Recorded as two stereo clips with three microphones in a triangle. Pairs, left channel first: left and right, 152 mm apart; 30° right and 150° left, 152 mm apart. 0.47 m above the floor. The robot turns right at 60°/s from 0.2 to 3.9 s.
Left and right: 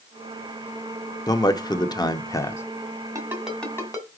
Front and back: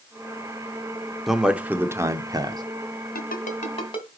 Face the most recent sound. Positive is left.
turn(degrees=25)